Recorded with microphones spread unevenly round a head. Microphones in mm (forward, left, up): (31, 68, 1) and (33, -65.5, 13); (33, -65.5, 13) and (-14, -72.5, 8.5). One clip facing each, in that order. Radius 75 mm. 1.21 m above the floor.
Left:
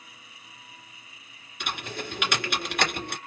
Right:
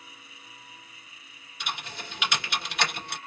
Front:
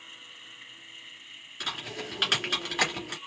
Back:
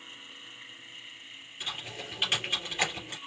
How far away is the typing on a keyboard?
About 2.5 m.